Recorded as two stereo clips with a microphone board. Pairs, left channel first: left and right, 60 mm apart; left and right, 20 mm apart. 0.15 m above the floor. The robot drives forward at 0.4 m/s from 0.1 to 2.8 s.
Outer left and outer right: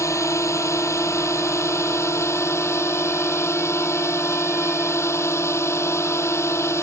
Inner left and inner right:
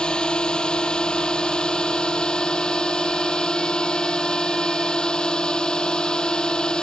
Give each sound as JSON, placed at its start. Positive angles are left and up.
{"t": 0.0, "sound": "a drone", "side_deg": 55}